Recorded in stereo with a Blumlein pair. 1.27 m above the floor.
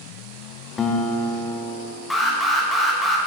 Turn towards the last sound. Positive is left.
turn(degrees=5)